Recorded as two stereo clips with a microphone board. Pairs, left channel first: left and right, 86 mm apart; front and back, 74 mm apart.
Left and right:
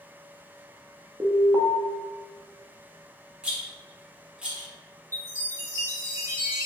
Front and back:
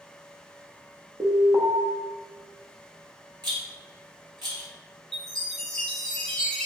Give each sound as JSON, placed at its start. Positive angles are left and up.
{"t": 1.2, "sound": "an alarm", "azimuth_deg": -140, "distance_m": 1.0}
{"t": 3.4, "sound": "a rattle", "azimuth_deg": -170, "distance_m": 1.7}
{"t": 5.1, "sound": "a chime", "azimuth_deg": -80, "distance_m": 1.6}